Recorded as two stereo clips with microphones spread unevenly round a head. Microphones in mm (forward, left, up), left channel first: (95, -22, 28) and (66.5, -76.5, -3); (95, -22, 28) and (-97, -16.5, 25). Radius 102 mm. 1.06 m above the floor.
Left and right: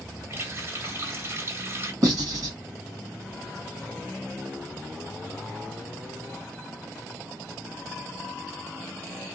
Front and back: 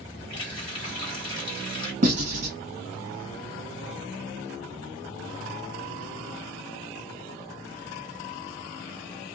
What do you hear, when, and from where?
0.3 s a running tap: 65° right, 1.5 m
2.0 s writing: 135° right, 1.5 m